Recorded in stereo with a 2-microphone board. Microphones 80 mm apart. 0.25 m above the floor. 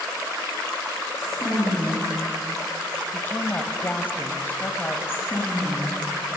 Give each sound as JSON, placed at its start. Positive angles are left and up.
{"t": 1.2, "sound": "a woman speaking", "side_deg": -15, "distance_m": 6.5}
{"t": 3.1, "sound": "a woman speaking", "side_deg": 25, "distance_m": 1.0}
{"t": 5.1, "sound": "a woman speaking", "side_deg": 25, "distance_m": 3.0}